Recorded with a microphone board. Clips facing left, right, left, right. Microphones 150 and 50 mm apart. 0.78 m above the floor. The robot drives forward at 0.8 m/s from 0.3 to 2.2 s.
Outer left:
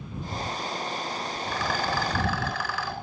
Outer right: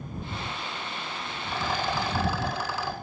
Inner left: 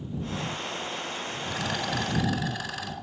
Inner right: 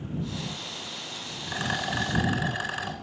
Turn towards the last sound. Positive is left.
turn(degrees=-25)  # may be behind; listen again after turning